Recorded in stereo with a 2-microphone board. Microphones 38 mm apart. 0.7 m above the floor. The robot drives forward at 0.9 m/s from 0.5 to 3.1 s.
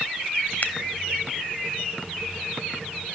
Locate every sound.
0.6 s scissors: 55° left (ahead or behind), 0.7 m